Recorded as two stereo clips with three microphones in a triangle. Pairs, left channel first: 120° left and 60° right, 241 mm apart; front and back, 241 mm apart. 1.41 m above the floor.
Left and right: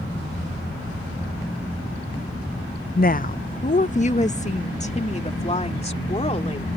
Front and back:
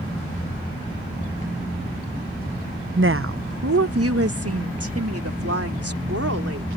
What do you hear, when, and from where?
3.0 s a woman speaking: 160° left; by 6.7 s 175° right